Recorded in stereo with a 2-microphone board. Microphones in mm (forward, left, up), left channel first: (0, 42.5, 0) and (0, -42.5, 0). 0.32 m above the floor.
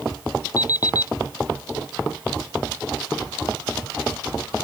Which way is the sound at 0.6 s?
45° left (ahead or behind).